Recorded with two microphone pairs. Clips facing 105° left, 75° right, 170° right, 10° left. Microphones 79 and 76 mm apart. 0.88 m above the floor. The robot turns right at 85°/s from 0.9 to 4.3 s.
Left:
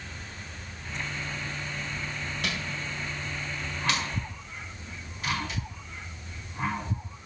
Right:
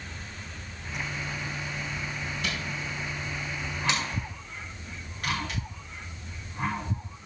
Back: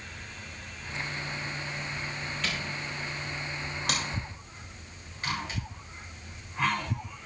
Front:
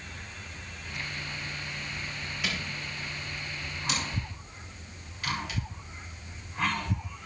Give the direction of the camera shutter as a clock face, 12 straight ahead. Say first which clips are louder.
Left 1 dB, front 1 dB; 9 o'clock.